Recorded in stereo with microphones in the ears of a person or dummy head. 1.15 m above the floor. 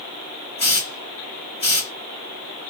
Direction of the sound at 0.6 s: 30° left (ahead or behind).